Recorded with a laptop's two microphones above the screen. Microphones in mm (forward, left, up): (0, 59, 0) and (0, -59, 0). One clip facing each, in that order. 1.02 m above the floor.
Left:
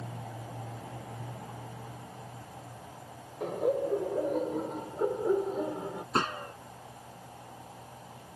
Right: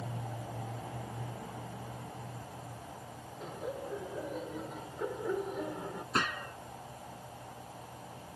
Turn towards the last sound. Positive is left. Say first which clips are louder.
# left 3 dB
turn(degrees=30)  # may be behind; listen again after turning